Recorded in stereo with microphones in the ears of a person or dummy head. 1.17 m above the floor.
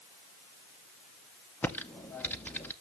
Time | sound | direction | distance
1.6 | typing on a keyboard | 10° left (ahead or behind) | 0.6 m